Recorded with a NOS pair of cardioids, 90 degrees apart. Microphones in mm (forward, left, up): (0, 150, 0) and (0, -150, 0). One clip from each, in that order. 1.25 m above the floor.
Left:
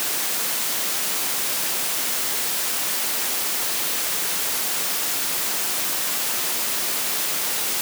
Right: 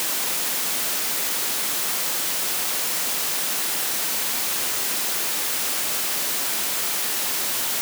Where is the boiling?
I don't hear boiling.